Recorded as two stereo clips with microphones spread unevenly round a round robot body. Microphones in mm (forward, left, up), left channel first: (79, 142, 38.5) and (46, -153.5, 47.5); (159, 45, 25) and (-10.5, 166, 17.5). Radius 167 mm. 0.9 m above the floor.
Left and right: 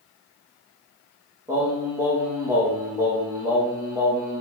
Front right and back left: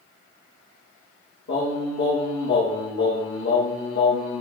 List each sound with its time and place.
1.5 s singing: 20° right, 7.5 m